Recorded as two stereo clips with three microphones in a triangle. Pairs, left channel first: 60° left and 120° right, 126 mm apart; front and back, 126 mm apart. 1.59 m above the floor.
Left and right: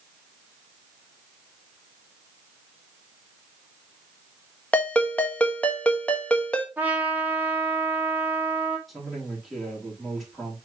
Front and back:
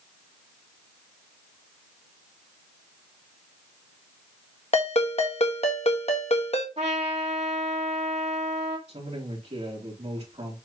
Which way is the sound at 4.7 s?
20° right.